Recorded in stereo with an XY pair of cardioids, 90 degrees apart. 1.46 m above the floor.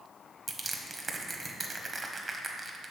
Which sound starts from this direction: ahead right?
Crushing, at 0.5 s.